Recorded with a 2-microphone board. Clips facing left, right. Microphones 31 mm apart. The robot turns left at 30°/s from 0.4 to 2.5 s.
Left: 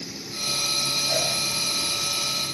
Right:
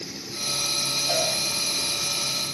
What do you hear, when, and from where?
1.1 s a cowbell: 50° right (ahead or behind), 5 m; by 1.3 s 55° right (ahead or behind), 5 m